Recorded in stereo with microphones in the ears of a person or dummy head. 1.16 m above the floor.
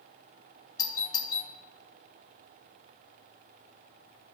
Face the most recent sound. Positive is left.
turn(degrees=20)  # may be behind; listen again after turning